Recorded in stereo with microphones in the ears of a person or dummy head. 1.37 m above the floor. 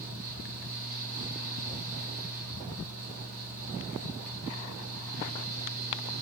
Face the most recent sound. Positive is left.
turn(degrees=-40)  # may be behind; listen again after turning